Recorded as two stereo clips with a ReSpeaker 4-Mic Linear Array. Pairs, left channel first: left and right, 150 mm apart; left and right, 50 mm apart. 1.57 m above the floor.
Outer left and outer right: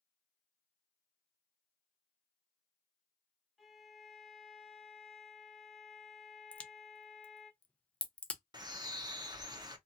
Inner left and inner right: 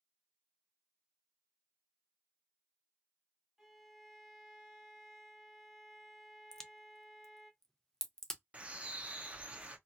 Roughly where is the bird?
Right.